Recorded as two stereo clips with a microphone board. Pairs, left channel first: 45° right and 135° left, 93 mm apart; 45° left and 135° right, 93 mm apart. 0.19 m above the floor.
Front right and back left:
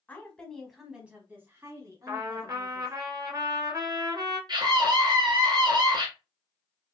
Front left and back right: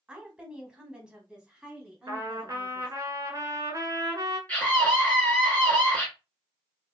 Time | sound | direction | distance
0.1 | a woman speaking | 75° right | 1.0 m
2.1 | a trumpet | 175° left | 1.1 m
4.5 | a scream | 120° left | 2 m